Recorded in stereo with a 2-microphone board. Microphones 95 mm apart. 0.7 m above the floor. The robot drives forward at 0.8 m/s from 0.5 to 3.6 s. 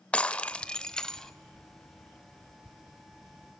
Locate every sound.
0.1 s breaking glass: 10° left (ahead or behind), 0.6 m; by 1.3 s 5° left (ahead or behind), 1.2 m